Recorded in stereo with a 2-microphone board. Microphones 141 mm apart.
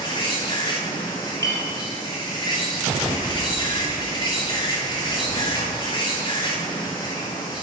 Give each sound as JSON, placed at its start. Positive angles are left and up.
{"t": 0.0, "sound": "an insect", "side_deg": 35, "distance_m": 2.0}
{"t": 1.4, "sound": "a clink", "side_deg": 20, "distance_m": 1.9}